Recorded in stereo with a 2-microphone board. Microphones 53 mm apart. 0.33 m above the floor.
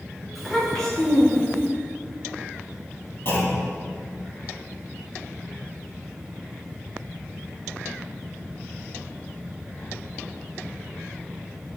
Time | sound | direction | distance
0.3 | a child speaking | centre (ahead or behind) | 2.5 m
3.2 | a clunk | 50° left (ahead or behind) | 3 m